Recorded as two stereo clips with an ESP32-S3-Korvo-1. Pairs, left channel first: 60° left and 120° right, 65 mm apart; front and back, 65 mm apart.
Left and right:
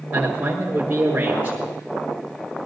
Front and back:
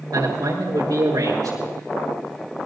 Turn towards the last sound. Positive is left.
turn(degrees=175)